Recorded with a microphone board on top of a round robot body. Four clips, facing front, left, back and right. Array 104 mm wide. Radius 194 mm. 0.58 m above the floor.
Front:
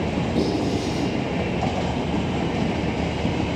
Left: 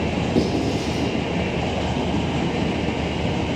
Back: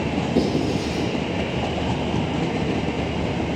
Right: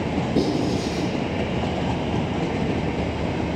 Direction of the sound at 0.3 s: 95° left.